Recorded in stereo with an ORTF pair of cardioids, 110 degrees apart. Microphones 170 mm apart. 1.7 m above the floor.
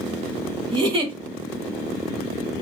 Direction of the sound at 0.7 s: 30° right.